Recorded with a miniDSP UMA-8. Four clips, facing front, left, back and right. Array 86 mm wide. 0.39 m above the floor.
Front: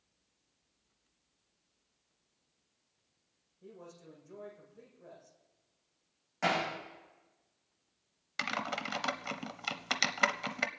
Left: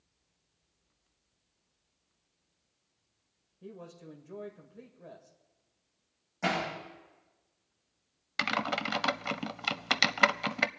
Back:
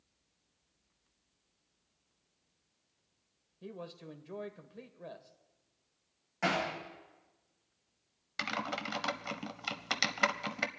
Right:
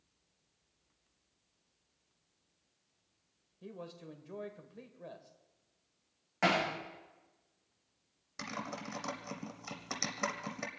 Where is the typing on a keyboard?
85° left, 0.7 m.